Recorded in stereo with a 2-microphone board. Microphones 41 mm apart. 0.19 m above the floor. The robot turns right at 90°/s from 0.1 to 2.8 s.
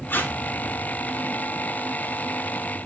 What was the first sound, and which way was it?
Tape being pulled, 55° left (ahead or behind).